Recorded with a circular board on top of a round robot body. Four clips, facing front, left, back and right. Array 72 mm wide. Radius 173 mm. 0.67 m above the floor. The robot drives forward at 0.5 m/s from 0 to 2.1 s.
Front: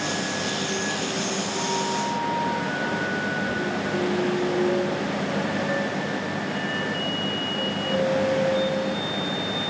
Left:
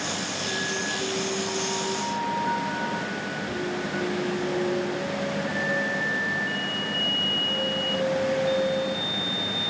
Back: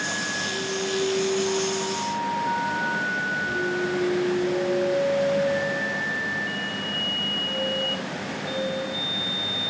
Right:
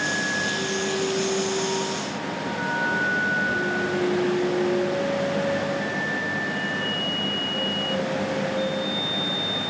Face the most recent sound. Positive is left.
No sound to turn to.